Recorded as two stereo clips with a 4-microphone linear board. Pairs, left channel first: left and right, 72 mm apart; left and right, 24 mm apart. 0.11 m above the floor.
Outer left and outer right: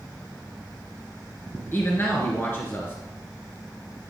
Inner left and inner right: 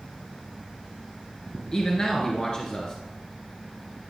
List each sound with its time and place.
1.7 s a man speaking: 30° left (ahead or behind), 1.4 m